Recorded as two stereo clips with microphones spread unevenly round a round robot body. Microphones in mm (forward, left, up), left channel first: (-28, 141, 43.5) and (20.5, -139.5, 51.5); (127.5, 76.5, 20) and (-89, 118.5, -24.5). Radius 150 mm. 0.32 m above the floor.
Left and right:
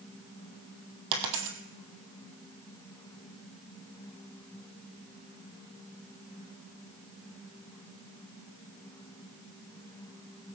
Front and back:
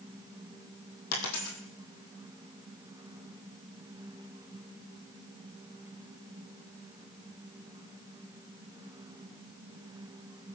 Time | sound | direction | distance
1.1 | a dropped coin | 55° right | 2 m